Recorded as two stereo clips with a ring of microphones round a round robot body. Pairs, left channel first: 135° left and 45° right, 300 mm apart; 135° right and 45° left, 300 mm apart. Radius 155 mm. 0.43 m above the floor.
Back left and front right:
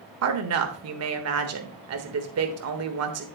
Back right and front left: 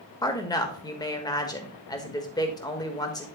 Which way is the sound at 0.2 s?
60° right.